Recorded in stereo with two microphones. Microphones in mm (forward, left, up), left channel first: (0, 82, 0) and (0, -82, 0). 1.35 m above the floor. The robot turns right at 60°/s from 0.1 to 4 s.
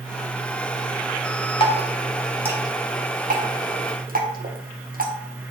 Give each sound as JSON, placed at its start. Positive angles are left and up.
{"t": 1.6, "sound": "dripping", "side_deg": 35, "distance_m": 1.8}